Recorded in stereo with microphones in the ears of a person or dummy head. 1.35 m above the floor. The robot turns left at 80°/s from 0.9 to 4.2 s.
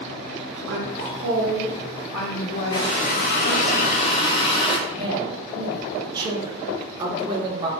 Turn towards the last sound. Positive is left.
turn(degrees=-25)  # may be behind; listen again after turning